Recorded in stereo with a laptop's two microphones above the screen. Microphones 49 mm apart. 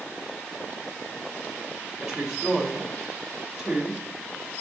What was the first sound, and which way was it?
A woman speaking, 10° right (ahead or behind).